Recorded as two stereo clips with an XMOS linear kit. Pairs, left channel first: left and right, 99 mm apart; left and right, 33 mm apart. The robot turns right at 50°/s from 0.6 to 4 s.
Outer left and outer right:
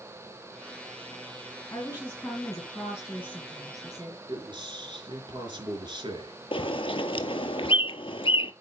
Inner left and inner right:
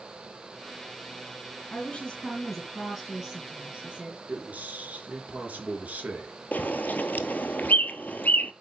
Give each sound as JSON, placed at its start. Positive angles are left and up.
{"t": 1.7, "sound": "a woman speaking", "azimuth_deg": 130, "distance_m": 2.0}
{"t": 4.3, "sound": "a man speaking", "side_deg": -55, "distance_m": 3.5}
{"t": 6.5, "sound": "a bird", "side_deg": 70, "distance_m": 0.9}